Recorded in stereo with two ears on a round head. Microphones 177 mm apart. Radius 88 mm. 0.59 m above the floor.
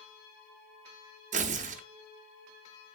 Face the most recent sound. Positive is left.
turn(degrees=-40)  # may be behind; listen again after turning